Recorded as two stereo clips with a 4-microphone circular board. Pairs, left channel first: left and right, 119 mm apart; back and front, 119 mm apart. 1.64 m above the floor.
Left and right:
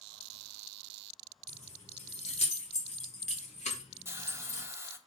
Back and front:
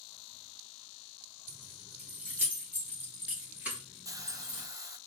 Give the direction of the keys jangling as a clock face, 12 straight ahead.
10 o'clock.